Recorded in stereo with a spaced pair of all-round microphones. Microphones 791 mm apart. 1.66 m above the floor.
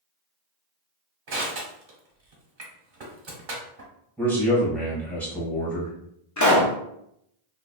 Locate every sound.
1.3 s crushing: 80° right, 1.1 m
4.2 s a man speaking: centre (ahead or behind), 1.4 m
6.4 s a pop: 25° left (ahead or behind), 0.6 m